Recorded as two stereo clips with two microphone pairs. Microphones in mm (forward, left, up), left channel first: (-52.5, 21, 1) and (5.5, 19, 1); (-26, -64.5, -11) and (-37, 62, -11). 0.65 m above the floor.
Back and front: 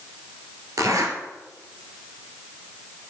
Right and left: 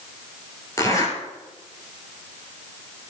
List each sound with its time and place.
0.8 s a zipper: 20° right, 2 m